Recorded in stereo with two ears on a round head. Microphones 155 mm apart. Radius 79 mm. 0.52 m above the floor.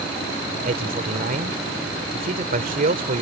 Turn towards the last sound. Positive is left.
turn(degrees=-55)  # may be behind; listen again after turning